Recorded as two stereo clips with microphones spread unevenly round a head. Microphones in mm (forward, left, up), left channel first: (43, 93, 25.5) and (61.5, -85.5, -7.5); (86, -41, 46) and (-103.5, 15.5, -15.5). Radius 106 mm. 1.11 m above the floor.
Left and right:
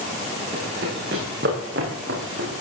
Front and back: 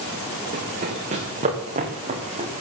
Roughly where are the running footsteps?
Behind right.